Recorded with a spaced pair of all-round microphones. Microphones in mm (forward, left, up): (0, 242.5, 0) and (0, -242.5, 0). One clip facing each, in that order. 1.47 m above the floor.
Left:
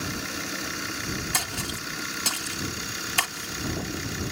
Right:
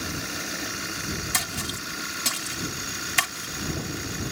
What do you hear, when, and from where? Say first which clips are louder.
1.3 s a splash: even; 40° right (ahead or behind)